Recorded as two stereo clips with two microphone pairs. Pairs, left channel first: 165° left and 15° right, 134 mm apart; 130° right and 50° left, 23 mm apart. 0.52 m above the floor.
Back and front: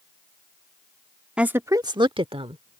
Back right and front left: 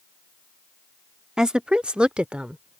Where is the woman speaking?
55° left; by 2.8 s 15° left.